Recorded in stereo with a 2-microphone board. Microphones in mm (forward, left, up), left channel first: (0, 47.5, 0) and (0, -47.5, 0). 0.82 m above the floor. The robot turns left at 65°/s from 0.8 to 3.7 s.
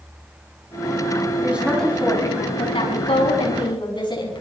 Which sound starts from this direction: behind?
A woman speaking, at 1.4 s.